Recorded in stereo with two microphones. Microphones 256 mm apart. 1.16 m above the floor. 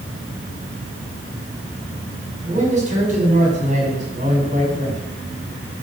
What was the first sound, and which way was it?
A man speaking, 30° right (ahead or behind).